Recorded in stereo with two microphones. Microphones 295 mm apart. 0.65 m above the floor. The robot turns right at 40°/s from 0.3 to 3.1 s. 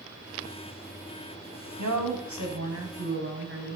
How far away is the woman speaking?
About 4 m.